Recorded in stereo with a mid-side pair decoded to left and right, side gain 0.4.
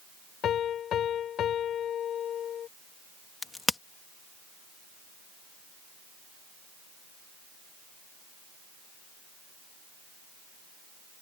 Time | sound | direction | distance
0.4 | a piano | 70° left | ?
3.4 | a crack | 25° left | ?